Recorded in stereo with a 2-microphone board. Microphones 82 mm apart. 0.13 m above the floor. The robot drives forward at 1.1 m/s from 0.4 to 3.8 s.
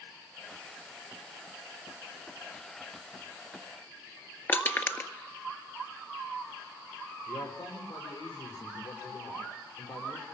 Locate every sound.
4.5 s crushing: 30° left (ahead or behind), 1.7 m
7.3 s a man speaking: 70° left (ahead or behind), 7 m